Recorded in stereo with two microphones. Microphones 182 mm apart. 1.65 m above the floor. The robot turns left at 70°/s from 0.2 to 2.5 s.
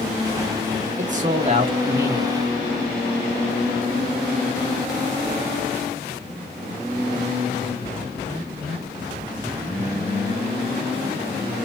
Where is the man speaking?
90° right, 0.7 m; by 2.3 s 175° left, 0.7 m.